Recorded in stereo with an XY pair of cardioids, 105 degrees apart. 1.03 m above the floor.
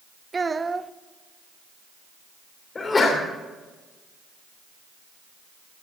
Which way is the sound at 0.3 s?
25° right.